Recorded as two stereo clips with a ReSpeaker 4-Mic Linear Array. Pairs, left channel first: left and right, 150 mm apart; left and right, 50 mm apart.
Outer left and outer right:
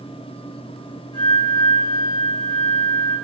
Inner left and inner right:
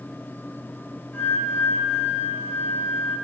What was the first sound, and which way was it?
A flute, 35° left (ahead or behind).